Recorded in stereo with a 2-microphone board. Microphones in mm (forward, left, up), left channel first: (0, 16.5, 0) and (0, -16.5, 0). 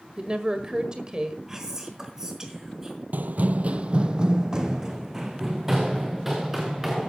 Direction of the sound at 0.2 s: 25° right (ahead or behind).